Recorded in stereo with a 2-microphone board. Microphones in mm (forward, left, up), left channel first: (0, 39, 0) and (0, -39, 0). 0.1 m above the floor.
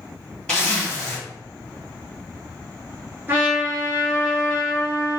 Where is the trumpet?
30° right (ahead or behind), 1.1 m.